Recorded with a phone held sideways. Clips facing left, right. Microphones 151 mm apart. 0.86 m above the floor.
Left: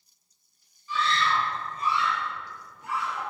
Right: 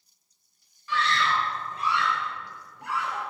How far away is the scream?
About 4 m.